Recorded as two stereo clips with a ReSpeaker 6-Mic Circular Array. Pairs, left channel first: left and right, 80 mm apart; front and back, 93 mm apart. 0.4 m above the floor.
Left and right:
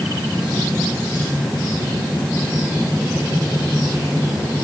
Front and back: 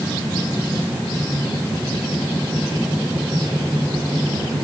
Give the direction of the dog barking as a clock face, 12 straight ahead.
No dog barking in this recording.